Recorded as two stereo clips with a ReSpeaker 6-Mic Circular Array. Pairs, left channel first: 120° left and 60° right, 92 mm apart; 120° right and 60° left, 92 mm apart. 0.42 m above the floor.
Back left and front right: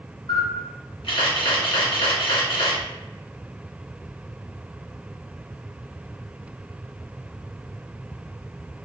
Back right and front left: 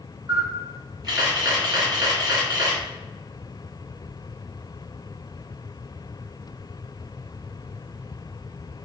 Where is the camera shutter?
100° left, 1.9 m.